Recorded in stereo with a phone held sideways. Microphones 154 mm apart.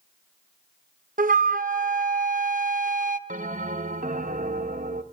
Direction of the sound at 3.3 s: 55° right (ahead or behind).